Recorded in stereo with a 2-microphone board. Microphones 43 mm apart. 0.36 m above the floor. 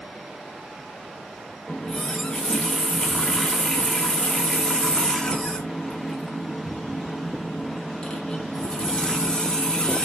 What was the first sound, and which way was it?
A running tap, 15° left (ahead or behind).